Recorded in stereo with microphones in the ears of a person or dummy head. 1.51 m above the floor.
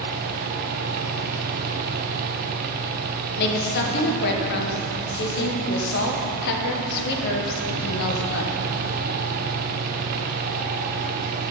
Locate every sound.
0.0 s a fan: 45° right (ahead or behind), 0.8 m
3.4 s a woman speaking: 60° left (ahead or behind), 1.3 m